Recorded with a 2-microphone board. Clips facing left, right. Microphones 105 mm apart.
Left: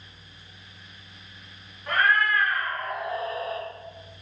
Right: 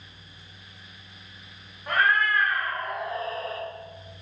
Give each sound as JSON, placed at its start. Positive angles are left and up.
{"t": 1.9, "sound": "a cat meowing", "side_deg": -20, "distance_m": 1.3}